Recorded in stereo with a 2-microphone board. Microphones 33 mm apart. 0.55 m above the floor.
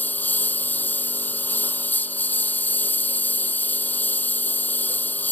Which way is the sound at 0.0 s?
60° left (ahead or behind).